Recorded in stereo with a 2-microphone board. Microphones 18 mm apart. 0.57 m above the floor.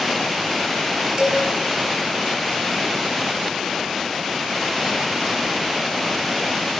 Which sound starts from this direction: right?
A cowbell, at 1.2 s.